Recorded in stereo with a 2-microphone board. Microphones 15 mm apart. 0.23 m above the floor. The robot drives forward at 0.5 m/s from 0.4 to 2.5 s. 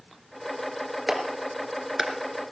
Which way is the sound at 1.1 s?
15° right (ahead or behind).